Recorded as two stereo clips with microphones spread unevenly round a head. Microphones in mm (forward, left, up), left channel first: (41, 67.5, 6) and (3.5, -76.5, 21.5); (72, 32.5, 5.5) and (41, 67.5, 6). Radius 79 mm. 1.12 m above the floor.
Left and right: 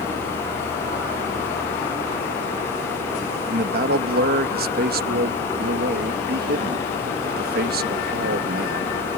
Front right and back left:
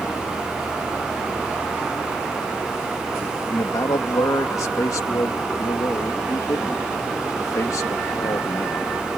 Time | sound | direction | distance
3.5 | a man speaking | 80° right | ?